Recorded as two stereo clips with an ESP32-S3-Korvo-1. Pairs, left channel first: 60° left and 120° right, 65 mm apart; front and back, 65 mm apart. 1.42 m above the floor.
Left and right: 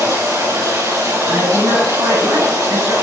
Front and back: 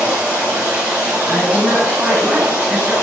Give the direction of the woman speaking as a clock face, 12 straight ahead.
4 o'clock.